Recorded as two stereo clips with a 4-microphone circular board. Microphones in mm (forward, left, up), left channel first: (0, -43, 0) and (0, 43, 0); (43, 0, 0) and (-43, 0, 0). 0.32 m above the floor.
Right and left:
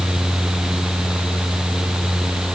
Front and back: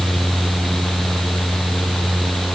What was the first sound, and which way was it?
Only background noise.